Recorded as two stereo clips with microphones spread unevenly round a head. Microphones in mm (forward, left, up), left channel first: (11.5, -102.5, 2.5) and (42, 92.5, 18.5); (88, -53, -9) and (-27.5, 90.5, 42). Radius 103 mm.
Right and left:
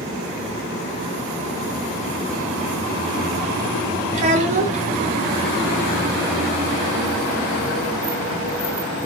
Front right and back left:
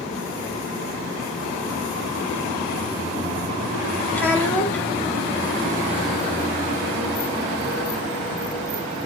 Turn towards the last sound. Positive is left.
turn(degrees=40)